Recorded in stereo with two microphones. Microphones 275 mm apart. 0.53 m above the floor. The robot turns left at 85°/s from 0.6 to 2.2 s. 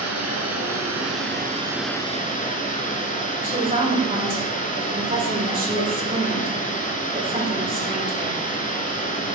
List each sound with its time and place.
0.0 s running water: 75° right, 1.3 m; by 9.4 s 150° left, 1.3 m
3.4 s a woman speaking: 30° right (ahead or behind), 1.7 m